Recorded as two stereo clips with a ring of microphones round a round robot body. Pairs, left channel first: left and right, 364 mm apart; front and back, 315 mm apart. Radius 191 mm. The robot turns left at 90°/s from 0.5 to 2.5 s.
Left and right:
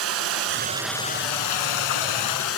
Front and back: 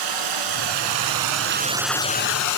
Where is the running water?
145° right, 0.8 m; by 2.6 s 35° left, 0.8 m.